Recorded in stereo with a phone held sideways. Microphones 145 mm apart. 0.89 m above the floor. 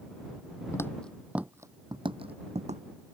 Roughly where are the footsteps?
Centre.